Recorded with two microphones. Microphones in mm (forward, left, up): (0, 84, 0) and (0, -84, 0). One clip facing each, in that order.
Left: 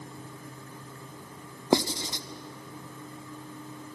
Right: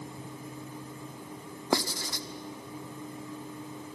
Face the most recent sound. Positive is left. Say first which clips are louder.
# left 5 dB
turn(degrees=20)  # may be behind; listen again after turning